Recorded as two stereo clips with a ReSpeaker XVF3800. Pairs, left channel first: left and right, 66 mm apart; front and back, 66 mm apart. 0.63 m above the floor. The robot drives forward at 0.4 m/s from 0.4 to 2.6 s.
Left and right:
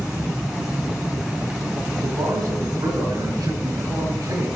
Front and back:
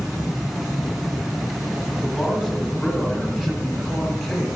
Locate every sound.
2.0 s a man speaking: 95° right, 4.5 m